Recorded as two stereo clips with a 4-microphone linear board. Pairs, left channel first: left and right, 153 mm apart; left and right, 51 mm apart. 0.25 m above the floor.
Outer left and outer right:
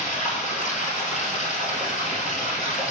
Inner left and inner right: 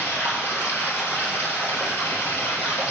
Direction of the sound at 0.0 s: 55° left (ahead or behind).